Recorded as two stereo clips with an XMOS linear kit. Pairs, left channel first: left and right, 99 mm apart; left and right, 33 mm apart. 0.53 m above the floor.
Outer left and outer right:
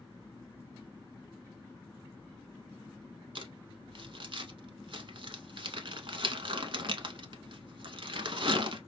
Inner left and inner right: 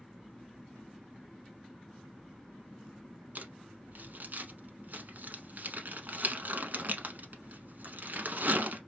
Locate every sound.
3.4 s crumpling: 60° right (ahead or behind), 0.7 m